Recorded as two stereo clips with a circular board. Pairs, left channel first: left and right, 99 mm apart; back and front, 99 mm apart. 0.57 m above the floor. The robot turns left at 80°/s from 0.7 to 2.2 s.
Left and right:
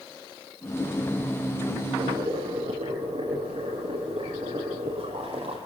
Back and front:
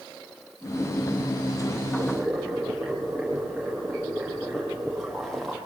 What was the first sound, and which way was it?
Boiling, 70° right.